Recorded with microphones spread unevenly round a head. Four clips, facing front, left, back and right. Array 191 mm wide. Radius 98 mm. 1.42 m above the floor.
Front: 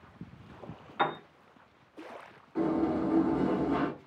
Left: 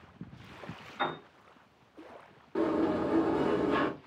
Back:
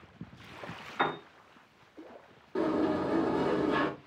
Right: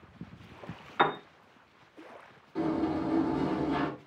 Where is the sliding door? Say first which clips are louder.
Left 1 dB, even; 140° left, 1.4 m.